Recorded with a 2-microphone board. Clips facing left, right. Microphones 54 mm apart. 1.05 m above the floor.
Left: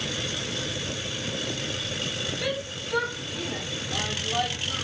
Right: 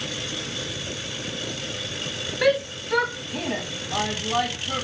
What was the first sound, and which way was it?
A shout, 65° right (ahead or behind).